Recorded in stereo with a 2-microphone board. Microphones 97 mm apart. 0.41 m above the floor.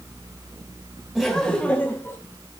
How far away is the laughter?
About 2 m.